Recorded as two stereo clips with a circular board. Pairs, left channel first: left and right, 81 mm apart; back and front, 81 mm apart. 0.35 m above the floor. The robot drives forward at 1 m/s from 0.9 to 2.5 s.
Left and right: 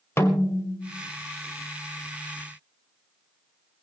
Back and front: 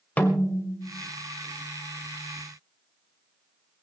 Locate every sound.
0.2 s a snare drum: 120° left, 1.8 m; by 1.1 s 130° left, 1.9 m